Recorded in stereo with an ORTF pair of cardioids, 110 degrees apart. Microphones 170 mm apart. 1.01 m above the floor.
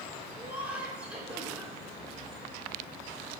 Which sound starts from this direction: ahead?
Laughter, at 0.3 s.